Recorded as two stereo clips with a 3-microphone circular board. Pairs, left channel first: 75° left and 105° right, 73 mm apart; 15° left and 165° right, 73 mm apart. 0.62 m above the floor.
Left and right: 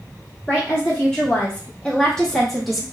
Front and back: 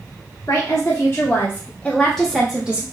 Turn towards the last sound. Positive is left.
turn(degrees=170)